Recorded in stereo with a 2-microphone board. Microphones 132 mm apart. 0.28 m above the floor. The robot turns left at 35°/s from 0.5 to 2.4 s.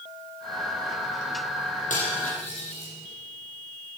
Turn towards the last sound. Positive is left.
turn(degrees=55)  # may be behind; listen again after turning